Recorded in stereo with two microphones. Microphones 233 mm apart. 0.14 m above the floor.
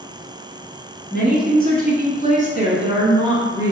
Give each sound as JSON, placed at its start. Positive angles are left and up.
{"t": 1.1, "sound": "a woman speaking", "side_deg": -40, "distance_m": 1.8}